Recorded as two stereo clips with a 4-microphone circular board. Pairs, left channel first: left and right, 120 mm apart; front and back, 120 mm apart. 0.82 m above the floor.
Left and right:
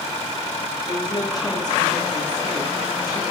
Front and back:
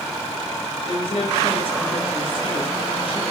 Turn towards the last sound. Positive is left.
turn(degrees=35)